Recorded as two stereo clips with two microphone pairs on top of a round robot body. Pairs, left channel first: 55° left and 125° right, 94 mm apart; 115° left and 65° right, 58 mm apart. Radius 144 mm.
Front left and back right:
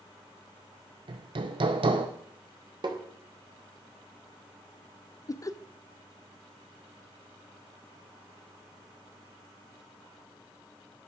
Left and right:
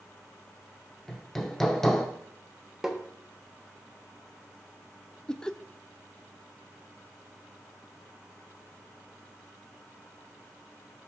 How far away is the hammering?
About 0.5 m.